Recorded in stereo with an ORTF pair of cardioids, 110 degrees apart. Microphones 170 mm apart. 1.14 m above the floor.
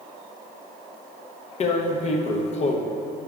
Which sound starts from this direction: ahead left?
Tearing paper, at 1.6 s.